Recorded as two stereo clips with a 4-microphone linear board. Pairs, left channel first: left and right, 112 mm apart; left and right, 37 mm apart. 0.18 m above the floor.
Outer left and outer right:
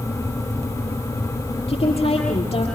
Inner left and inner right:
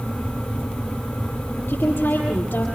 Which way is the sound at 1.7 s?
65° left (ahead or behind).